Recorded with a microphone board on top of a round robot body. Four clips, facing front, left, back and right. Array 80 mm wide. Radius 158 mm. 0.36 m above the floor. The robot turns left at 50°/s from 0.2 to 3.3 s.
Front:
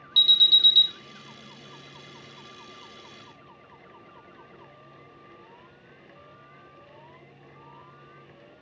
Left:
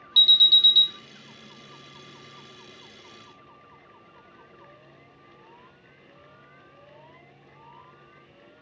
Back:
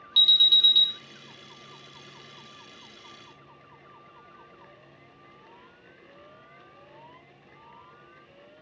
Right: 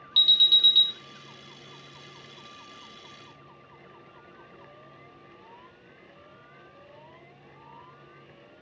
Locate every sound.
0.2 s an alarm: 110° right, 0.8 m; by 0.9 s 140° right, 0.8 m